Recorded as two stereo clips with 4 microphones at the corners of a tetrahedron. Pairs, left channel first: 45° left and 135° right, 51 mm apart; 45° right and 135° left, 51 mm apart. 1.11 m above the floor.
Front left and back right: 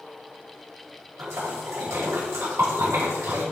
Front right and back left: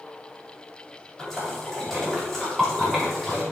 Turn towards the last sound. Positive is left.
turn(degrees=-130)